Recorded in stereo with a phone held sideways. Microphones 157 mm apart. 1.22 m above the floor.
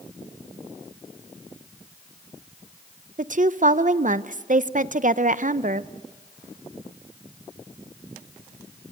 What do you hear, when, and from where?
3.2 s a woman speaking: 55° right (ahead or behind), 0.6 m